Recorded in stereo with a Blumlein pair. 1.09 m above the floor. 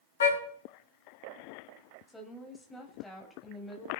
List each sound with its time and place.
0.2 s a car horn: 65° left, 3.5 m
2.1 s a woman speaking: 10° left, 5.5 m